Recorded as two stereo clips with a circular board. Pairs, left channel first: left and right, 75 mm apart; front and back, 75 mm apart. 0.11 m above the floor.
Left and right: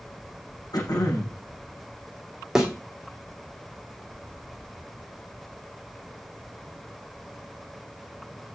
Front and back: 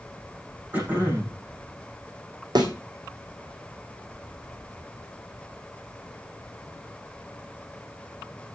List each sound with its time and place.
0.7 s throat clearing: 115° left, 6.5 m
2.5 s a thud: 175° right, 3 m